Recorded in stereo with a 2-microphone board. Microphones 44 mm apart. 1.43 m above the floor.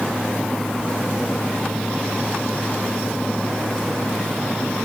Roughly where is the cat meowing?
I don't hear a cat meowing.